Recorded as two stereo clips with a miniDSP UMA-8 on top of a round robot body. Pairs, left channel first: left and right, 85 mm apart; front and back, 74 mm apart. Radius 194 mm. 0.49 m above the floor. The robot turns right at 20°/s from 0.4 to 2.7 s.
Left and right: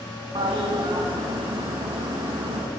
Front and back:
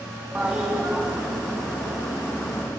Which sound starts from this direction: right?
A toilet flushing, at 0.3 s.